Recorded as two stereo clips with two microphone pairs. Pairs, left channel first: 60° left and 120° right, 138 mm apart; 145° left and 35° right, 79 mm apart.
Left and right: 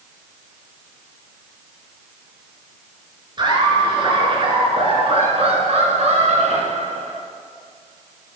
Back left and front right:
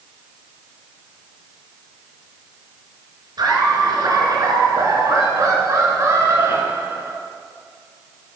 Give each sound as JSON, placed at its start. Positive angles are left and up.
{"t": 3.4, "sound": "laughter", "azimuth_deg": -65, "distance_m": 4.5}